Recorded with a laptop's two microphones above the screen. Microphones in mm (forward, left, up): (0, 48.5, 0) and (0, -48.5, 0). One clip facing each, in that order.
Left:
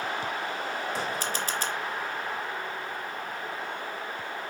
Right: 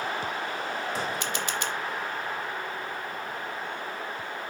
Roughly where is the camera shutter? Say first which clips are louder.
Even; left.